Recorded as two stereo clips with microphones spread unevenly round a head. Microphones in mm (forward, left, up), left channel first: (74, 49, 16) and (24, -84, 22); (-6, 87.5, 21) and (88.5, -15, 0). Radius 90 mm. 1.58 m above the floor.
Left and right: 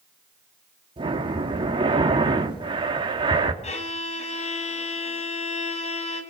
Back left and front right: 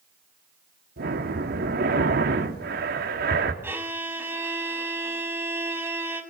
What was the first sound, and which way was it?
Breathing, 60° right.